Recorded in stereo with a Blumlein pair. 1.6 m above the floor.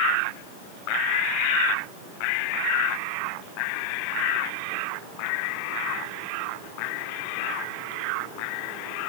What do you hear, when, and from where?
Only background noise.